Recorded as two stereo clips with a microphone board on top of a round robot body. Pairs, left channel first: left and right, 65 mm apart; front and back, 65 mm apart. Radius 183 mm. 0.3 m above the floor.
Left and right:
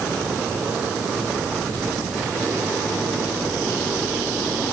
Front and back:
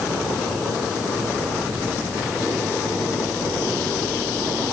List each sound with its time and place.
Only background noise.